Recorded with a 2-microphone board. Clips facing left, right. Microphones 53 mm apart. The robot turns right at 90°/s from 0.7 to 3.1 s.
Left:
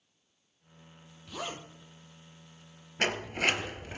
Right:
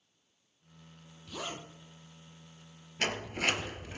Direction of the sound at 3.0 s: 35° left (ahead or behind).